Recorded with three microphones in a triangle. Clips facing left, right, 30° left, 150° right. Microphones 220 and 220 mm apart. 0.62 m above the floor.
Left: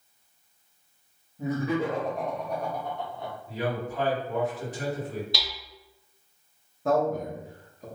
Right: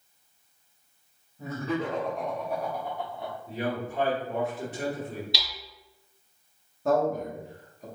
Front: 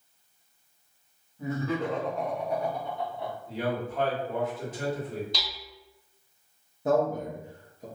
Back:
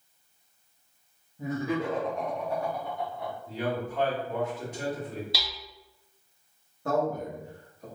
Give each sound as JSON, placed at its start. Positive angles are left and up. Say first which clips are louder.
{"t": 1.4, "sound": "laughter", "louder": "left 3 dB, even", "azimuth_deg": 155, "distance_m": 0.7}
{"t": 3.5, "sound": "a man speaking", "louder": "left 1 dB, even", "azimuth_deg": -55, "distance_m": 1.5}
{"t": 5.3, "sound": "hammering", "louder": "left 3 dB, even", "azimuth_deg": 130, "distance_m": 0.7}
{"t": 6.8, "sound": "a man speaking", "louder": "even, front 3 dB", "azimuth_deg": 0, "distance_m": 0.8}